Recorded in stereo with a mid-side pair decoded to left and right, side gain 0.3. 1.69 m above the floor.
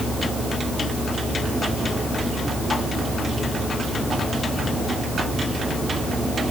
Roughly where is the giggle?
No giggle in this recording.